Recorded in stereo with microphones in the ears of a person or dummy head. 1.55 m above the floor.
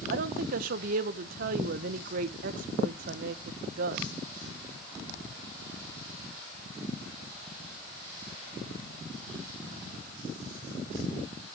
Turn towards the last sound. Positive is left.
turn(degrees=-55)  # may be behind; listen again after turning